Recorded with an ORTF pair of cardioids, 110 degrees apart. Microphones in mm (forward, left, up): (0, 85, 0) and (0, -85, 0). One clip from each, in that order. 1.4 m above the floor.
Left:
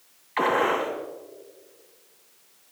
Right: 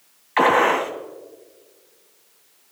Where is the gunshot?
45° right, 3.5 m.